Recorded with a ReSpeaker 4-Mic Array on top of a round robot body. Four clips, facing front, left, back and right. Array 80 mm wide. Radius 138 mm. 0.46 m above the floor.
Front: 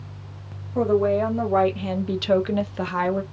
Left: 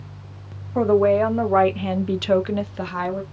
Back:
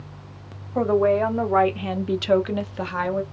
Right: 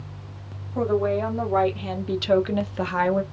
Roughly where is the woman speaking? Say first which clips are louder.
Left 6 dB, back 1 dB; behind left.